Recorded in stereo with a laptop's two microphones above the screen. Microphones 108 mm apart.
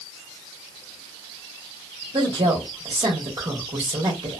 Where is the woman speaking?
50° right (ahead or behind), 1.3 m.